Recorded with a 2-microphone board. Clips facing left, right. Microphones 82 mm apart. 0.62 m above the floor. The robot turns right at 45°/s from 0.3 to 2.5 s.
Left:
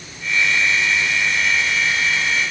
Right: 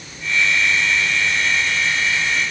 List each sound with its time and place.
Only background noise.